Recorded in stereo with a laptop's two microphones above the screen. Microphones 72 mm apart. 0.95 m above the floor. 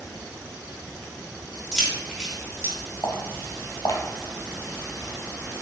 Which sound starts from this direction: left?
Footsteps, at 3.0 s.